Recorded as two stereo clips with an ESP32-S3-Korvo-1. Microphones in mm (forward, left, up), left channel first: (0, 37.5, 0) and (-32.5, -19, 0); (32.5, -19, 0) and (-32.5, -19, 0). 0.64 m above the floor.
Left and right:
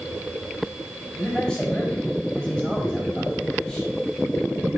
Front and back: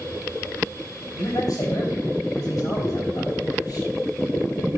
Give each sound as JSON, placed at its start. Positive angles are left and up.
{"t": 1.1, "sound": "a man speaking", "azimuth_deg": -20, "distance_m": 4.5}